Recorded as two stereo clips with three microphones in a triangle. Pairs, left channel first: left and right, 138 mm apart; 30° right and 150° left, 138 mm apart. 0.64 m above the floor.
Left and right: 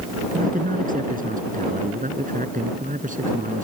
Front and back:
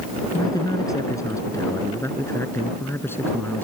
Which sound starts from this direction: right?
A man speaking, at 0.3 s.